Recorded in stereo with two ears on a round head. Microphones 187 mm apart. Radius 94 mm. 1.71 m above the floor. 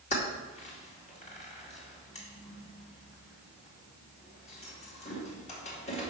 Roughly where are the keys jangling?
Left.